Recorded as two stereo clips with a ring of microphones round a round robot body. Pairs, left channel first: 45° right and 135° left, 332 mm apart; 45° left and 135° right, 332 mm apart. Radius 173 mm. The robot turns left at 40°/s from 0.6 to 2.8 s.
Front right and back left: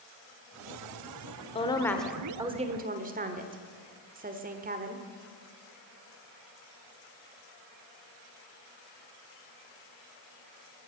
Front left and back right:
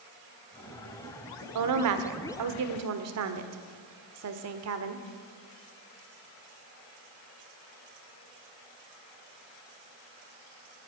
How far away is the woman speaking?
About 1.5 m.